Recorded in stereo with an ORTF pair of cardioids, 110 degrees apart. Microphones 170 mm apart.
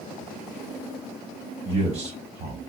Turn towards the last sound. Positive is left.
turn(degrees=-40)